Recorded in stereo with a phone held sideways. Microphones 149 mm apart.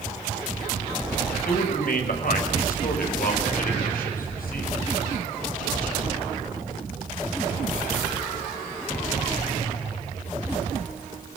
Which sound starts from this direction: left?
A man speaking, at 1.4 s.